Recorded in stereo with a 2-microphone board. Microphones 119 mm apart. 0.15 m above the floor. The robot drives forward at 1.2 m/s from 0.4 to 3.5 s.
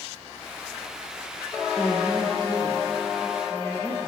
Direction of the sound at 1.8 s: 35° left (ahead or behind).